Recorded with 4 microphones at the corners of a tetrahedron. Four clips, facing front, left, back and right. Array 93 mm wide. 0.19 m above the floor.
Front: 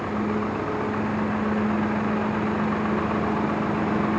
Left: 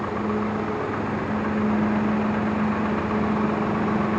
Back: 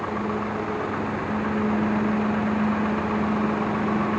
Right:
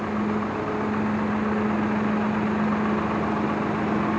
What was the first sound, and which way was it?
Only background noise.